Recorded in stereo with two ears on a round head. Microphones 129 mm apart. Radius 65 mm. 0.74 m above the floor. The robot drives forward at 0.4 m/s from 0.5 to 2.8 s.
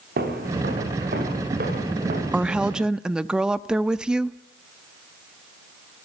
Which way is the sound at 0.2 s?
75° right (ahead or behind).